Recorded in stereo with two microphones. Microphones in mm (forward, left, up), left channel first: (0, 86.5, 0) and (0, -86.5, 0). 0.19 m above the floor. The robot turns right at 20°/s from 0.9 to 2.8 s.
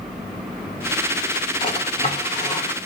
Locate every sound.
1.6 s a drawer: 30° left (ahead or behind), 2 m; by 2.9 s 50° left (ahead or behind), 2 m